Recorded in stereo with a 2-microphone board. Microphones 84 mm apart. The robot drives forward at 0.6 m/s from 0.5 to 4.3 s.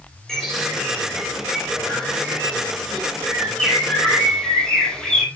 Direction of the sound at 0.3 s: 5° left (ahead or behind).